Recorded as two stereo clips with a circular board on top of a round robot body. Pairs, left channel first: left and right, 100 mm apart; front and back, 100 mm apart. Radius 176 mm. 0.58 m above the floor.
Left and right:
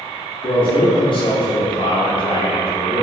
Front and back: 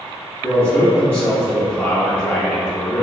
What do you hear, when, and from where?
0.4 s a man speaking: 75° left, 0.8 m